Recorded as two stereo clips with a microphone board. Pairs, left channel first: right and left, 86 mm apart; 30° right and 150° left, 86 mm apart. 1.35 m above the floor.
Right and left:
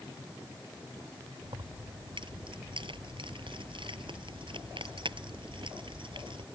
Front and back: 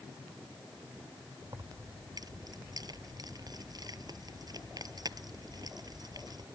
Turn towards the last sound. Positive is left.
turn(degrees=110)